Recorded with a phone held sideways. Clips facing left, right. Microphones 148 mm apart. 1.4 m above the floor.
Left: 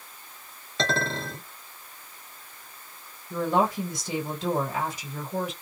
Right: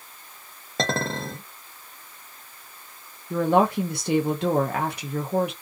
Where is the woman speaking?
65° right (ahead or behind), 0.5 m.